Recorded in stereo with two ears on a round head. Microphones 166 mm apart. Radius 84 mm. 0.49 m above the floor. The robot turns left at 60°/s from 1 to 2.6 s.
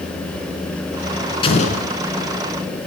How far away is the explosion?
About 3.5 m.